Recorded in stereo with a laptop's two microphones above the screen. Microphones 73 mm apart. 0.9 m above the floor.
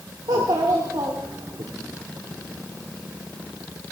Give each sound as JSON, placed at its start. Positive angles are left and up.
{"t": 0.3, "sound": "a child speaking", "side_deg": -70, "distance_m": 1.7}